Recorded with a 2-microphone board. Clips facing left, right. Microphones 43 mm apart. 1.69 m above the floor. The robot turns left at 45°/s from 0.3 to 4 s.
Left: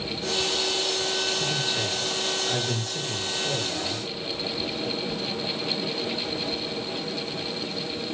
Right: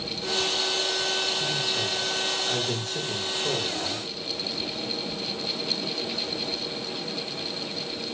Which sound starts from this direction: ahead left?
A man speaking, at 1.4 s.